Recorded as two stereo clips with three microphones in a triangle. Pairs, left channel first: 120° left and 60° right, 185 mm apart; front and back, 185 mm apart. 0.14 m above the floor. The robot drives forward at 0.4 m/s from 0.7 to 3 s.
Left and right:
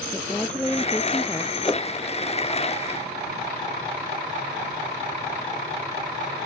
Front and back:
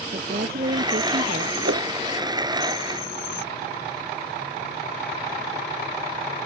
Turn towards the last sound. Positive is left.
turn(degrees=-170)